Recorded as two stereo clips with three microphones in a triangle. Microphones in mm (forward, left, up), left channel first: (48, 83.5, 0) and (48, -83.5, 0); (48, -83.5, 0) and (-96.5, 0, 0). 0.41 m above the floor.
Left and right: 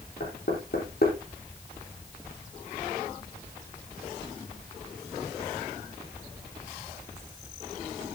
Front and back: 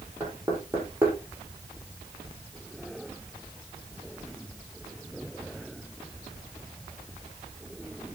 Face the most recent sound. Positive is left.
turn(degrees=70)